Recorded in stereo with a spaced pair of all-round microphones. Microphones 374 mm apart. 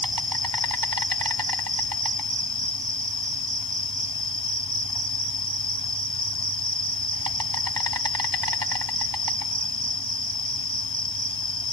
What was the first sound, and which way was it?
An insect, 65° right (ahead or behind).